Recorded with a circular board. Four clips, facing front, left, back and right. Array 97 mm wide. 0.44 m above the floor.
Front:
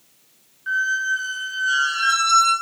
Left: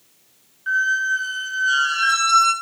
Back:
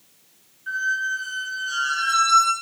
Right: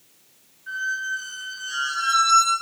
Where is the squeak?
60° left, 0.7 m.